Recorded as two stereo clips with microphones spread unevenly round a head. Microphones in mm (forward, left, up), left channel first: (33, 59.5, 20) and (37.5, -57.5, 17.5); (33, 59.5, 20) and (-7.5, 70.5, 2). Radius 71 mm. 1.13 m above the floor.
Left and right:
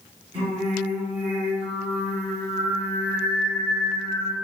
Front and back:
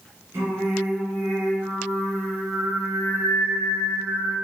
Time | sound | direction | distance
0.3 | singing | 155° right | 0.8 m